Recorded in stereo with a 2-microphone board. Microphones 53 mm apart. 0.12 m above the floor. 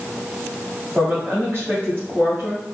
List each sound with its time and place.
0.9 s a woman speaking: 30° right (ahead or behind), 1.5 m